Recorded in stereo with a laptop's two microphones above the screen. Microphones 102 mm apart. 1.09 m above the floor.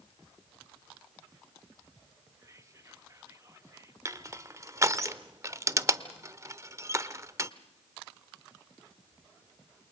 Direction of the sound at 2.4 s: 30° right (ahead or behind).